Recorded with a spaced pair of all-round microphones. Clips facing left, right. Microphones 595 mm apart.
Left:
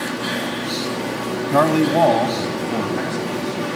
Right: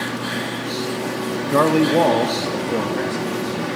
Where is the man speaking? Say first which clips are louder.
Right 1 dB; 15° left (ahead or behind), 0.8 m; by 3.7 s 10° left (ahead or behind), 2.5 m.